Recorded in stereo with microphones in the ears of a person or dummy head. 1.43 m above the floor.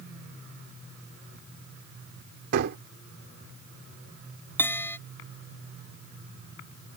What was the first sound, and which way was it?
A gunshot, 60° right (ahead or behind).